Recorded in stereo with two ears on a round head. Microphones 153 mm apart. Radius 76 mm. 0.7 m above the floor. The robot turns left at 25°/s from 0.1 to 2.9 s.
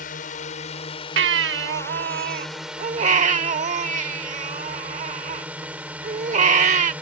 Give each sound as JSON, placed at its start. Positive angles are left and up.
{"t": 0.0, "sound": "a drone", "azimuth_deg": 60}
{"t": 1.2, "sound": "a baby crying", "azimuth_deg": -90}